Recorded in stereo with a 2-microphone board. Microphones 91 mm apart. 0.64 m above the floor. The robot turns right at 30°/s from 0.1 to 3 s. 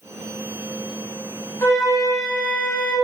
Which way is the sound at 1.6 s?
30° left.